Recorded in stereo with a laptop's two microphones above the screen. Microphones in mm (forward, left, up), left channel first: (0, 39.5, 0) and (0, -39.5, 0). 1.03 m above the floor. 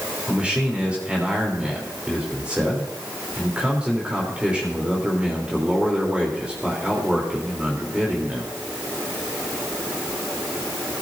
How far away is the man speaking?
About 3 m.